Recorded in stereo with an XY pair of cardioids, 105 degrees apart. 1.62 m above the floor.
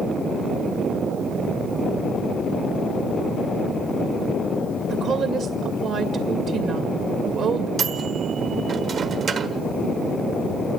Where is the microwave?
55° right, 1.3 m.